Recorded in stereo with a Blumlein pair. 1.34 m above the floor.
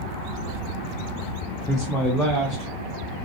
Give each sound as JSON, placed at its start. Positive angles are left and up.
{"t": 1.7, "sound": "a man speaking", "azimuth_deg": 0, "distance_m": 0.9}